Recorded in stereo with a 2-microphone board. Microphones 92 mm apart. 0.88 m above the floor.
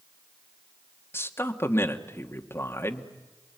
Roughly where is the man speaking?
Left.